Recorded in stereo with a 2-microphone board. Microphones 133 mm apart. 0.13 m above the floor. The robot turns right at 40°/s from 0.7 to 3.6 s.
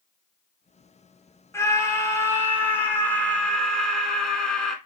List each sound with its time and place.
1.5 s a scream: 20° left (ahead or behind), 1.1 m; by 4.8 s 5° left (ahead or behind), 1.1 m